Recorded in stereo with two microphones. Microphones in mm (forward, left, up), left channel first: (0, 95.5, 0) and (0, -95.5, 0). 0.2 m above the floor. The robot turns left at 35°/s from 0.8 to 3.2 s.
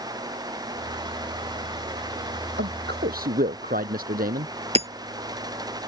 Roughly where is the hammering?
Right.